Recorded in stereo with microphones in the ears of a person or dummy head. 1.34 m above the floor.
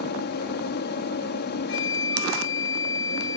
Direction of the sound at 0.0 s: 50° left (ahead or behind).